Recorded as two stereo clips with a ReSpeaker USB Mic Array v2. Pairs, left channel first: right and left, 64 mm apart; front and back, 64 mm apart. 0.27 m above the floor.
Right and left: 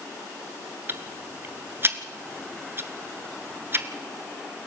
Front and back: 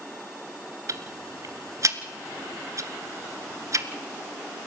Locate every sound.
0.9 s ticking: 145° left, 1.3 m